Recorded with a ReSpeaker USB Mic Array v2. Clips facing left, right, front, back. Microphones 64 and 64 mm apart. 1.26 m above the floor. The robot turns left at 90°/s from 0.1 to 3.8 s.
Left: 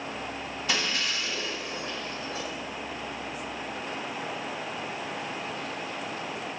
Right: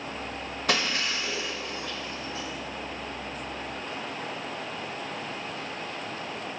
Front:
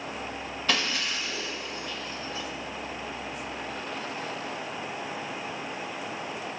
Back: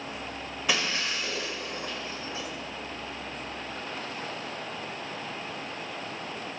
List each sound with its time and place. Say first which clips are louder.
0.7 s breaking glass: right 2 dB, even; 100° right, 1.9 m; by 2.5 s 95° left, 1.9 m